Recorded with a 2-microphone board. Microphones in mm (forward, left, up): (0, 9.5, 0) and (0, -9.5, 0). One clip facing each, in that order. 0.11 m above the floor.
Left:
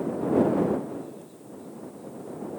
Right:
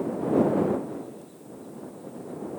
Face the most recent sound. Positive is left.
No sound to turn to.